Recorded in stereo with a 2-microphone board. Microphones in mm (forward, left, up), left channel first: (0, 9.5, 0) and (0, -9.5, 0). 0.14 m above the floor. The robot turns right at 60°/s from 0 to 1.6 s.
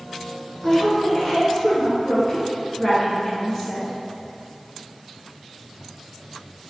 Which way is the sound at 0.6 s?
20° left (ahead or behind).